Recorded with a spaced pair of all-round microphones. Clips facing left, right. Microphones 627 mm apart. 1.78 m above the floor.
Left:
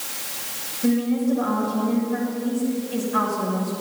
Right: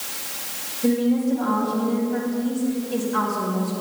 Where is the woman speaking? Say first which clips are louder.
Right 1 dB; 5° left (ahead or behind), 6.5 m.